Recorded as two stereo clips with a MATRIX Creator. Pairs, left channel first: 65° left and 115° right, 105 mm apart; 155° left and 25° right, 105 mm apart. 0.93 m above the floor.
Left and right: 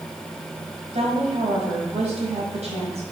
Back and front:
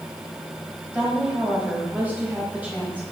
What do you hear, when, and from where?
0.9 s a woman speaking: 100° right, 4.5 m